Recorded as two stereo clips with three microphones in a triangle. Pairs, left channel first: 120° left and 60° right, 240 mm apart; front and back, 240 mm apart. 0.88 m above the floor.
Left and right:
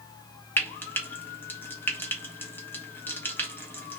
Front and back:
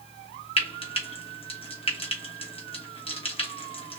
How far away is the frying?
About 1.1 m.